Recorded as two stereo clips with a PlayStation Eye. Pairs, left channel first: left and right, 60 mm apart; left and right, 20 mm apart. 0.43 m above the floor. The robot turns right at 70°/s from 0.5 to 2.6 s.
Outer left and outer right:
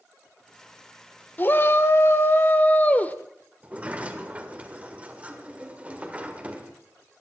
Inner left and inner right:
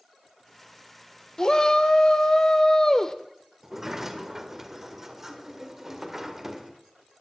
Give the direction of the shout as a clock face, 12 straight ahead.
10 o'clock.